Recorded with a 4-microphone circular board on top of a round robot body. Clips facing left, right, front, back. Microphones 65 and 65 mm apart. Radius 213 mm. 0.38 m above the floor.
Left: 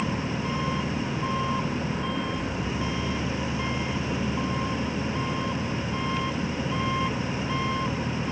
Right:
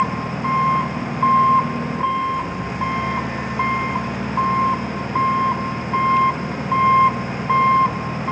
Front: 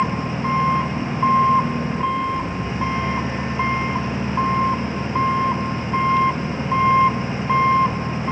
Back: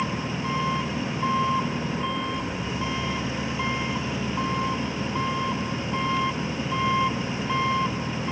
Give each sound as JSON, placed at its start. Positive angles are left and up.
{"t": 0.0, "sound": "an engine running", "azimuth_deg": -55}